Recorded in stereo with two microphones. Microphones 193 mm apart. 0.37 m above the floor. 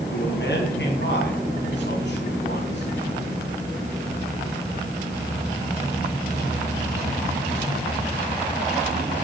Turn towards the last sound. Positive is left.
turn(degrees=65)  # may be behind; listen again after turning